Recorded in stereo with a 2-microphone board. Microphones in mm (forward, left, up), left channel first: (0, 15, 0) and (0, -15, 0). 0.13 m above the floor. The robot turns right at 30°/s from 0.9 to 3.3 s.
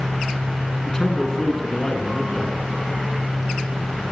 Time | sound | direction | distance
0.8 | a man speaking | 20° left (ahead or behind) | 1.5 m